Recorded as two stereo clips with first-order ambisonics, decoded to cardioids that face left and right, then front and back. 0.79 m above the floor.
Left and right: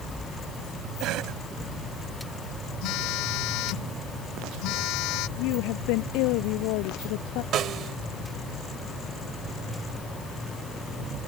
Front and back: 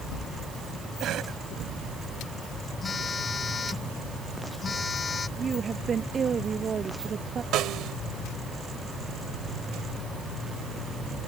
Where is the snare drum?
140° right.